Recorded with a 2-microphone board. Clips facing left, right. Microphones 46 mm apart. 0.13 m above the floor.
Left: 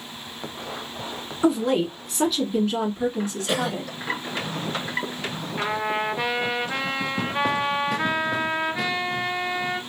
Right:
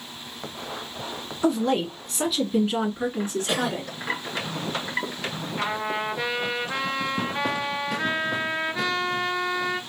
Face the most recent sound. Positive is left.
turn(degrees=15)  # may be behind; listen again after turning